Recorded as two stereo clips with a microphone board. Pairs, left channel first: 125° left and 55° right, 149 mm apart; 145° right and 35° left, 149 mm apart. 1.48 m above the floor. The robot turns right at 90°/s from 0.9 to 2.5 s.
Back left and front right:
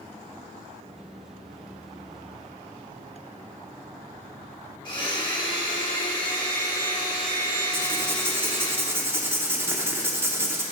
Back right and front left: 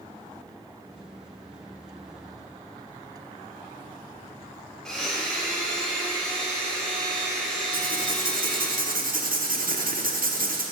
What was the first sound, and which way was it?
A blender, 130° left.